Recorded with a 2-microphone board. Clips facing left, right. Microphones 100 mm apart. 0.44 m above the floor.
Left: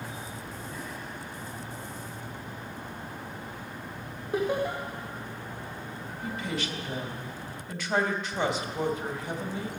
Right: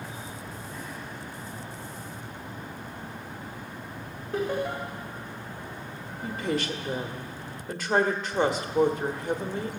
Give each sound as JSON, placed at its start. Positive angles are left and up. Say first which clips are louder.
{"t": 4.3, "sound": "laughter", "louder": "left 1 dB", "side_deg": 15, "distance_m": 1.6}
{"t": 6.2, "sound": "a woman speaking", "louder": "right 5 dB", "side_deg": -40, "distance_m": 1.2}